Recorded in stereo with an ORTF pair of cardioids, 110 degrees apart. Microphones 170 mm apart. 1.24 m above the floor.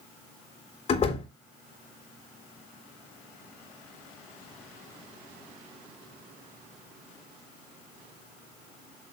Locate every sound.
0.9 s a door slam: 40° left, 3 m